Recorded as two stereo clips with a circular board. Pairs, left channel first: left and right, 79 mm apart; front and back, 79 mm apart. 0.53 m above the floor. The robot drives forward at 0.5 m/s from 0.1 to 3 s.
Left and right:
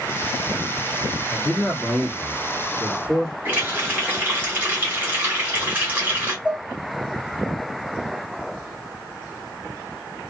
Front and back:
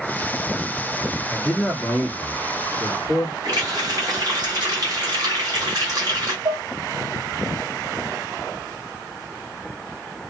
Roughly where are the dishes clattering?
Behind.